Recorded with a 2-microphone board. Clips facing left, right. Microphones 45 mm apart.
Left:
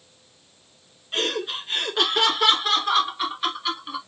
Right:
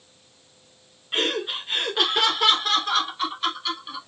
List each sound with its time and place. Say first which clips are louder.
1.1 s laughter: right 1 dB; 20° right (ahead or behind), 1.2 m; by 4.0 s 20° left (ahead or behind), 1.9 m